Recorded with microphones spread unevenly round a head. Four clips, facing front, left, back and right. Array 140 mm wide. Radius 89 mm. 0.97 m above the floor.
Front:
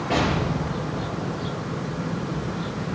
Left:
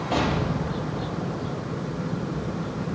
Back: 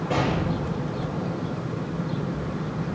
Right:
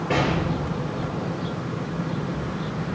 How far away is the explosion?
About 8 m.